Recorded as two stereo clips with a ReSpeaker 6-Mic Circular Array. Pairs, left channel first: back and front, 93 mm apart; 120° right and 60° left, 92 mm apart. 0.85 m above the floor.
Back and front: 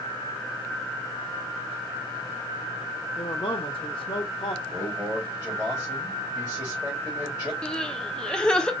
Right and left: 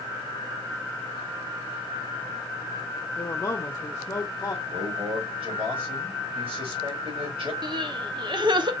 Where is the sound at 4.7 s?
70° left, 3.5 m.